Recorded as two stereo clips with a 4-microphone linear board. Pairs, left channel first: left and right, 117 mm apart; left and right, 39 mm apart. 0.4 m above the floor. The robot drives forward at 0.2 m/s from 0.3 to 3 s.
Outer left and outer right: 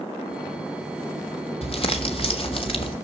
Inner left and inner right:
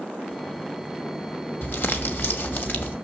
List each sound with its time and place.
1.6 s crumpling: 55° left (ahead or behind), 1.7 m; by 3.0 s 50° left (ahead or behind), 1.8 m